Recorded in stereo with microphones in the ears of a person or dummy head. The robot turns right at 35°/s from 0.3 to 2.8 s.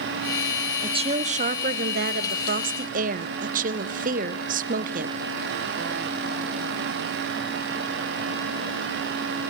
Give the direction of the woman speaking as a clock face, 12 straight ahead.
5 o'clock.